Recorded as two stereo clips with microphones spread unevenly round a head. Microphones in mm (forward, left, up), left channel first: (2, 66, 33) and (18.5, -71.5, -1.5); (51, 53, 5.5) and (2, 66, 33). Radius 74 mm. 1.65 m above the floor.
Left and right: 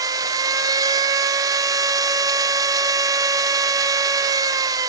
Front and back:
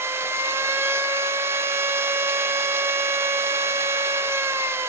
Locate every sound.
0.0 s a machine running: 155° right, 0.8 m